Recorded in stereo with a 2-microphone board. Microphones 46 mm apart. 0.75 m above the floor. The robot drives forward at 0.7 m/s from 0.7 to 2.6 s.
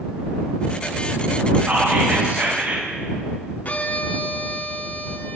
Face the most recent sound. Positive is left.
turn(degrees=35)  # may be behind; listen again after turning